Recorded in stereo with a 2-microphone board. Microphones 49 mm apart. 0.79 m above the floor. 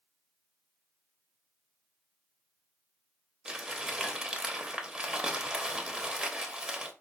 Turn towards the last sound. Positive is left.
turn(degrees=-15)  # may be behind; listen again after turning